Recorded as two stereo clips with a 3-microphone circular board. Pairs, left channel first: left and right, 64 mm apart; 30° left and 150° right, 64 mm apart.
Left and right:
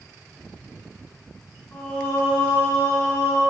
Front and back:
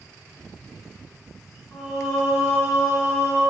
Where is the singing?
100° left, 1.2 m.